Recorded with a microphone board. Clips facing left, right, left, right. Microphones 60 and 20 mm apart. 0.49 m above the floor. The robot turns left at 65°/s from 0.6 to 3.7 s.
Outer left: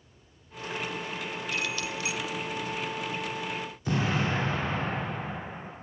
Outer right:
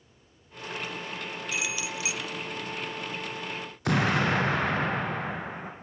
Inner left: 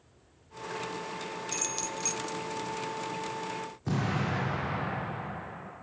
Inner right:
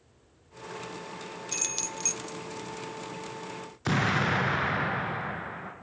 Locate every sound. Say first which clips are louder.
1.5 s keys jangling: even, inner right 3 dB; 10° right (ahead or behind), 0.6 m; by 2.2 s 20° right (ahead or behind), 0.6 m
3.9 s an explosion: outer right 4 dB, inner right 6 dB; 70° right (ahead or behind), 3.5 m